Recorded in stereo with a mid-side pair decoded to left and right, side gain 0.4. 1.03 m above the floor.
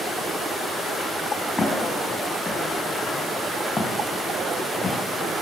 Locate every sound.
1.6 s footsteps: 30° left, 5 m